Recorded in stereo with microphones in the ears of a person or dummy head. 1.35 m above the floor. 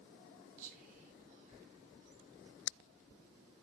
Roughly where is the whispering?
Right.